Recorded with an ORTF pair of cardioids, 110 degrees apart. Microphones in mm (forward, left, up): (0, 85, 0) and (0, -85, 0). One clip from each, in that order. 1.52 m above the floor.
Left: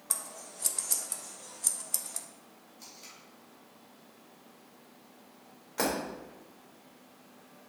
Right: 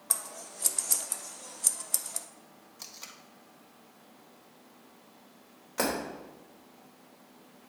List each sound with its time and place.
0.1 s scissors: 15° right, 0.6 m
2.8 s tape being pulled: 60° right, 1.3 m
5.8 s breaking glass: 10° right, 3.5 m